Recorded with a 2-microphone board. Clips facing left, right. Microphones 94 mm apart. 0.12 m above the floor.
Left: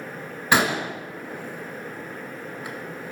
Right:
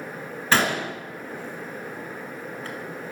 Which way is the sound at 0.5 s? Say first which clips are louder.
Left 1 dB; 15° left (ahead or behind).